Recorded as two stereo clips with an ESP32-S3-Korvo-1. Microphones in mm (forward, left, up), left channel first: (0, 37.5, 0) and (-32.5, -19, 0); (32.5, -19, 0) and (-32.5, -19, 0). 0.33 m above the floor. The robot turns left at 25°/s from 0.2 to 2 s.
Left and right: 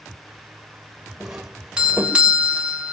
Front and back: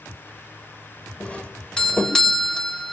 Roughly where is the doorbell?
Ahead right.